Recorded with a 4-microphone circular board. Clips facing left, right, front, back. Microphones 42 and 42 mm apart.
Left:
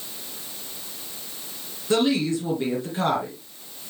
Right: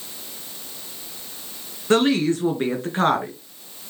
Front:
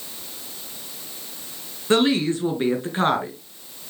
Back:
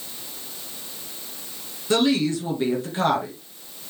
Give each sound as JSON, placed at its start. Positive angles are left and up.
{"t": 1.9, "sound": "a woman speaking", "azimuth_deg": -60, "distance_m": 2.5}